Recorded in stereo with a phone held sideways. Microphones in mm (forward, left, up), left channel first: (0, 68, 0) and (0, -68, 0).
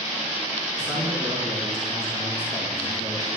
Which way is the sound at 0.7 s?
65° left (ahead or behind).